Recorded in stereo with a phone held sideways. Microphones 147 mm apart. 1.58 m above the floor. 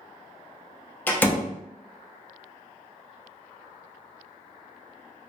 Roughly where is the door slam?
Centre.